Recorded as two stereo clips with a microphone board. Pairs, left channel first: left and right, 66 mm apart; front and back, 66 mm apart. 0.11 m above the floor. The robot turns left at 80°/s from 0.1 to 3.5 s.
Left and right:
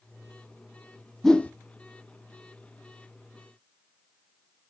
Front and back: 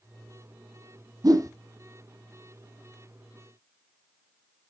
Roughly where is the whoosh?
Behind.